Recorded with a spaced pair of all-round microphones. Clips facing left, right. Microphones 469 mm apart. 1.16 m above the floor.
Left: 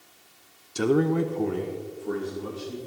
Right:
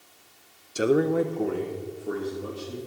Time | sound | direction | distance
0.8 | a man speaking | 10° left (ahead or behind) | 0.5 m